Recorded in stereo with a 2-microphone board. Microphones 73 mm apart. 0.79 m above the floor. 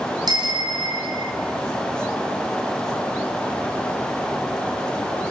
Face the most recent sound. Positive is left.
turn(degrees=-70)  # may be behind; listen again after turning